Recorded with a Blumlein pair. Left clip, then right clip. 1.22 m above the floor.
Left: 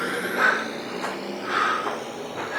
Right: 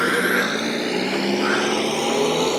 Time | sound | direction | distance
0.0 | a vehicle | 25° right | ?